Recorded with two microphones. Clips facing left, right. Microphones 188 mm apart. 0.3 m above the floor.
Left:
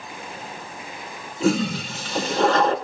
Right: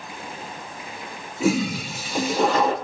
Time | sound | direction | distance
1.4 | a toilet flushing | 10° right (ahead or behind) | 3 m